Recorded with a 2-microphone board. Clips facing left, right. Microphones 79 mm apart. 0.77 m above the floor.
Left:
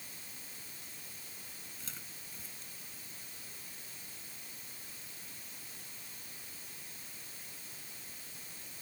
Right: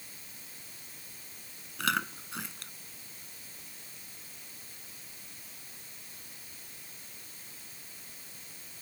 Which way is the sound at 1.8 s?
75° right (ahead or behind).